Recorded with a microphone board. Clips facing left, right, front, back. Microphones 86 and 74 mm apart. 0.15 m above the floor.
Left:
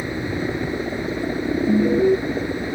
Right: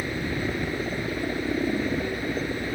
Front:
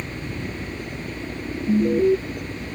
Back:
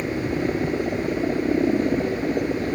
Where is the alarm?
55° left.